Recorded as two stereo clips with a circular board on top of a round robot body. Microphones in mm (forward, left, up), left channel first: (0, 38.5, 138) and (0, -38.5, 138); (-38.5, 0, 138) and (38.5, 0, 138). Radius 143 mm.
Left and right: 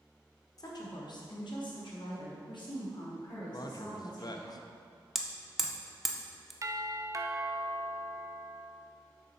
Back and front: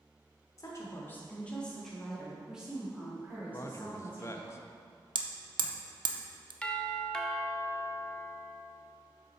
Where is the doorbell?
110° right, 0.9 m.